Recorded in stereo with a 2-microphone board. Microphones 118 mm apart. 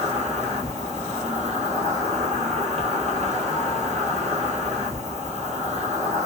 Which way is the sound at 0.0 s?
80° right.